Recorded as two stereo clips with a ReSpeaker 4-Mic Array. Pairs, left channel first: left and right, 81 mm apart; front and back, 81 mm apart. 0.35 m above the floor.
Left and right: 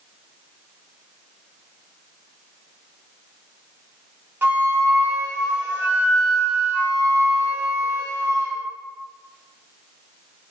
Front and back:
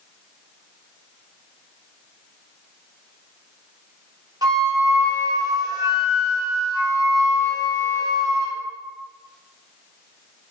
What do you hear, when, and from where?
4.4 s a flute: 150° right, 0.9 m